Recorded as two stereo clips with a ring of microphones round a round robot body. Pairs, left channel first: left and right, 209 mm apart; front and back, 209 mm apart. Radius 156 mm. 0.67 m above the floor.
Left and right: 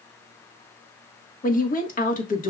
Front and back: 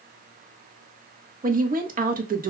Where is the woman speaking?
135° left, 1.4 m.